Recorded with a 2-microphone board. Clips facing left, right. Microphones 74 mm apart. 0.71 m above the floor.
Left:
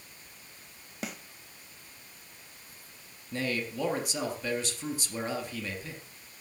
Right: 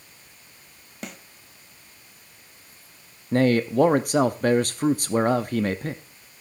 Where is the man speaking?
55° right (ahead or behind), 0.7 m.